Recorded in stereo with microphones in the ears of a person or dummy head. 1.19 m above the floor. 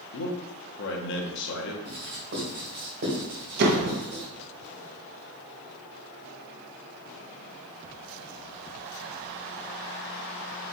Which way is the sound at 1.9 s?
50° right (ahead or behind).